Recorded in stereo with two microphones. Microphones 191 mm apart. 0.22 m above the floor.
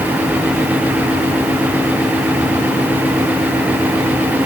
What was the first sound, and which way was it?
Only background noise.